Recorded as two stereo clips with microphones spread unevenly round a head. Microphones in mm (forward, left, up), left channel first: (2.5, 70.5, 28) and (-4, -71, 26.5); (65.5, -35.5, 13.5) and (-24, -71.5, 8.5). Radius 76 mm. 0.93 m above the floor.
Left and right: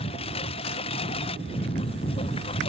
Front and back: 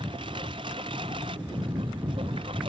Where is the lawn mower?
140° left.